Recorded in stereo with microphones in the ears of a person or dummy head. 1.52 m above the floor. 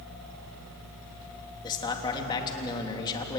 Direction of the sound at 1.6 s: 25° left (ahead or behind).